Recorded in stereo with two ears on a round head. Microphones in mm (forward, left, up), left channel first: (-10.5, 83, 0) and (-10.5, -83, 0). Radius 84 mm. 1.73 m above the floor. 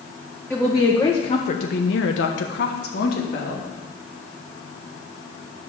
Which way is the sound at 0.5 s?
Centre (ahead or behind).